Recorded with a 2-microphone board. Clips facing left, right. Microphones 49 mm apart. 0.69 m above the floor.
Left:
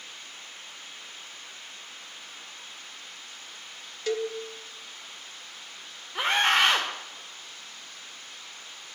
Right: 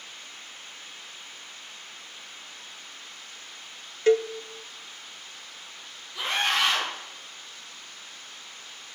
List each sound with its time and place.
4.1 s a cowbell: 35° right (ahead or behind), 0.5 m
6.2 s a scream: 50° left (ahead or behind), 2 m